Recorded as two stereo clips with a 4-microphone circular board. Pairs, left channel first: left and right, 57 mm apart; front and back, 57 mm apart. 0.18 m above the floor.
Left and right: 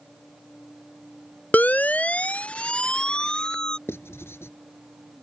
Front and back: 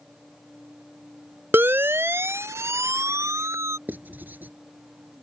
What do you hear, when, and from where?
1.5 s a siren: 140° left; by 3.8 s 165° left
3.9 s writing: 125° left